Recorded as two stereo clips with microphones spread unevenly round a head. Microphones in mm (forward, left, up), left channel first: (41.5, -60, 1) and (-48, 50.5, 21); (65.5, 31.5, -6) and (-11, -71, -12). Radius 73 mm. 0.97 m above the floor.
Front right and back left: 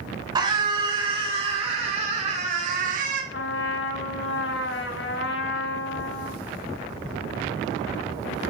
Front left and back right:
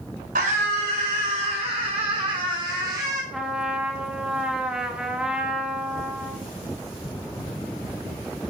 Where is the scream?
170° right, 3.5 m; by 3.2 s 160° left, 2.5 m.